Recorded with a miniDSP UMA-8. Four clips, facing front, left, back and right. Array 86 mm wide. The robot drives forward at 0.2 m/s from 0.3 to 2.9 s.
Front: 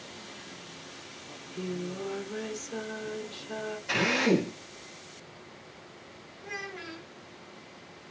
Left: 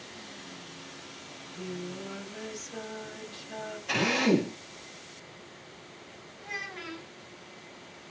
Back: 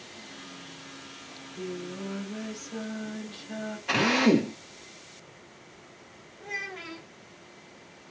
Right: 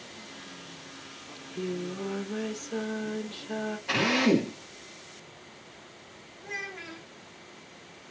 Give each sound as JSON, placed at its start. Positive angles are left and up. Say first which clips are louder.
{"t": 1.3, "sound": "singing", "louder": "right 6 dB, front 1 dB", "azimuth_deg": -65, "distance_m": 1.2}
{"t": 3.9, "sound": "a drill", "louder": "right 1 dB, back 4 dB", "azimuth_deg": -160, "distance_m": 1.3}
{"t": 6.4, "sound": "a child speaking", "louder": "right 1 dB, back 2 dB", "azimuth_deg": 160, "distance_m": 1.8}